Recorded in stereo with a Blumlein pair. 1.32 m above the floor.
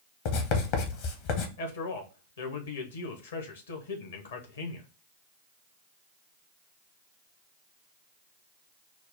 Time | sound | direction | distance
0.2 | writing | 45° left | 1.0 m
1.6 | a man speaking | 65° left | 1.2 m